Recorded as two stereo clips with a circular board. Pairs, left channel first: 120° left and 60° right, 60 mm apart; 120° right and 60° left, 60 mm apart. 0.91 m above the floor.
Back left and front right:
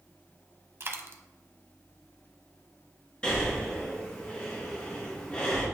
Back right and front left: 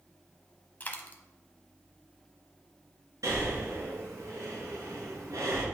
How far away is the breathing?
About 3 m.